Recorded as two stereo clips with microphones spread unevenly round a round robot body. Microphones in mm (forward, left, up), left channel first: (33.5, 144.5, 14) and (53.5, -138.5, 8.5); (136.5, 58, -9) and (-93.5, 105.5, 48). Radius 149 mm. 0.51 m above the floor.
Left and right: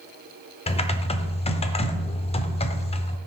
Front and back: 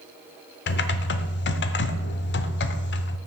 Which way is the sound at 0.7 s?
25° left.